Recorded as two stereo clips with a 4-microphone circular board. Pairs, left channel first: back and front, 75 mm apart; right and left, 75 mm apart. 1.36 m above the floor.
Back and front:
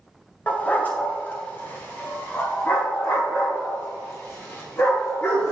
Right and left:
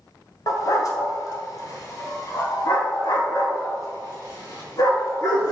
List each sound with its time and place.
0.5 s a dog barking: 115° right, 1.7 m; by 5.5 s 125° right, 6 m